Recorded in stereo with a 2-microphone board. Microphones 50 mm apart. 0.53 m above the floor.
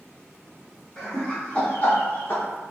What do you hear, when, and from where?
1.0 s laughter: 15° left (ahead or behind), 1.3 m; by 2.4 s 45° left (ahead or behind), 1.1 m